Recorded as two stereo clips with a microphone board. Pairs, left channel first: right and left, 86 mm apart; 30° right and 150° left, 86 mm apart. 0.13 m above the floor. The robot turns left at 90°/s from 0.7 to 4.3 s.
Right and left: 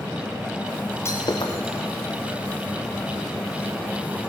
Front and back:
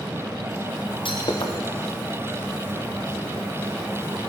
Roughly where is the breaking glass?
Ahead right.